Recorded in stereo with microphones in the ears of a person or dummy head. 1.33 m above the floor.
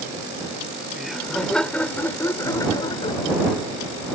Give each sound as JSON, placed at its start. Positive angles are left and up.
{"t": 0.9, "sound": "laughter", "side_deg": -5}